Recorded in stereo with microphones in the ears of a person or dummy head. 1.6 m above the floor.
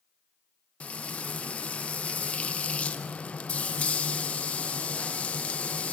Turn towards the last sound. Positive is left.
turn(degrees=0)  # may be behind; listen again after turning